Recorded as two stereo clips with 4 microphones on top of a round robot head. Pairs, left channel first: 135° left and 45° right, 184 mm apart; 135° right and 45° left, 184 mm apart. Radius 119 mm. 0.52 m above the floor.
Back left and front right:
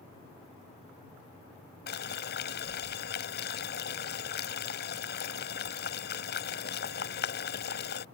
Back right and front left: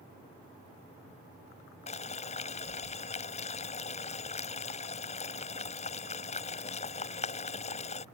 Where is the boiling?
170° left.